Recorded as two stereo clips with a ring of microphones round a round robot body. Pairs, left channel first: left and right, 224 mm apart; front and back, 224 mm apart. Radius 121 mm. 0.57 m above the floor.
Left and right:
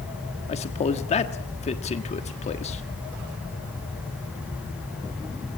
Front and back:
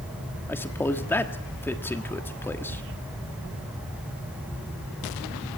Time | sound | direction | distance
0.5 | a man speaking | 70° left | 1.4 m